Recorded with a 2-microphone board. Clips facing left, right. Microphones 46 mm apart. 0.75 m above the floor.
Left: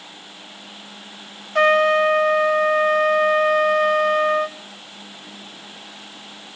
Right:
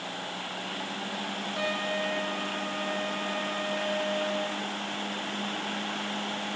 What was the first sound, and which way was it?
A trumpet, 65° left (ahead or behind).